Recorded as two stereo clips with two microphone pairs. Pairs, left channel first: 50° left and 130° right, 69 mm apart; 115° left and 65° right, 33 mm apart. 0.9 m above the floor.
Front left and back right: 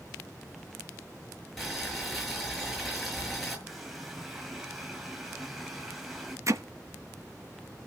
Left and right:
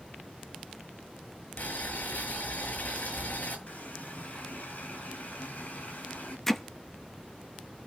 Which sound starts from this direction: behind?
Hammering, at 6.5 s.